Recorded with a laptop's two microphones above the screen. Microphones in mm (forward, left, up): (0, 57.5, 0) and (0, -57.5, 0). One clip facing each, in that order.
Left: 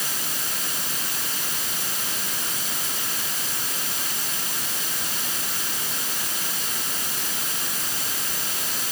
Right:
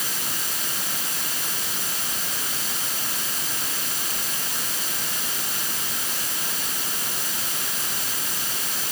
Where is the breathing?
No breathing in this recording.